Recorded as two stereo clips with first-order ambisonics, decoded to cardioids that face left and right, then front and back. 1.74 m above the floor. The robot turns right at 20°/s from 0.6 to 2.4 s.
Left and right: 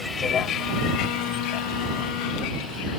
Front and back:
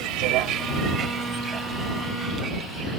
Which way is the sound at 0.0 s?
170° left.